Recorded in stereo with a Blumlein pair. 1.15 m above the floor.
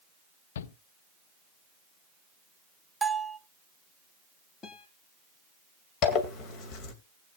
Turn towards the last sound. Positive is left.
turn(degrees=35)